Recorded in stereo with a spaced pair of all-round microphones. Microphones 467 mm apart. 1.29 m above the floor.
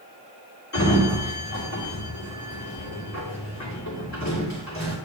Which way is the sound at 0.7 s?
35° left (ahead or behind).